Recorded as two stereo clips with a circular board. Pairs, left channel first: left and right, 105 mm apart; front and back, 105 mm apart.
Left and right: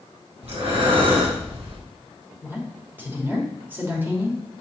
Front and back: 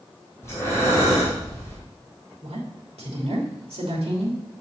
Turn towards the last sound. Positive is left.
turn(degrees=-160)